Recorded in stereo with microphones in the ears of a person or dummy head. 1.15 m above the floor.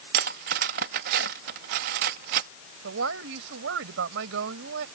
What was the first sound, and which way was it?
Cutlery clinking, 45° right (ahead or behind).